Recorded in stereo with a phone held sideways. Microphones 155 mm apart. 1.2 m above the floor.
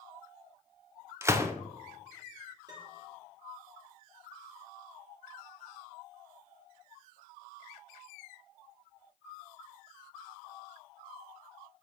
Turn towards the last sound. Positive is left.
turn(degrees=-25)  # may be behind; listen again after turning